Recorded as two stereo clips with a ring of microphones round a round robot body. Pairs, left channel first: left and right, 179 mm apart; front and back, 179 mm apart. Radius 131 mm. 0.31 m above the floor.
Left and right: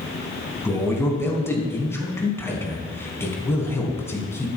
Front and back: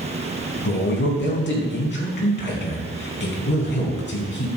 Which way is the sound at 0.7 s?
15° left.